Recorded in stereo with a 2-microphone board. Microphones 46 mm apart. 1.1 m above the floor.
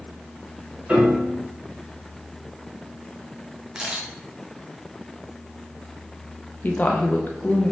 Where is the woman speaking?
40° left (ahead or behind), 0.6 m.